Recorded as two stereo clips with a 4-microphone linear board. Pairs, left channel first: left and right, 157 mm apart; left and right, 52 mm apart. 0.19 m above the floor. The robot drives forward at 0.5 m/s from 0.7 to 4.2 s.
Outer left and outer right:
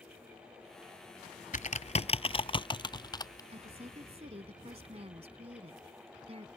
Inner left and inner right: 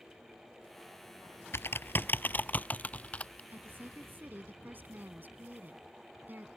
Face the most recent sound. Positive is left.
turn(degrees=-45)  # may be behind; listen again after turning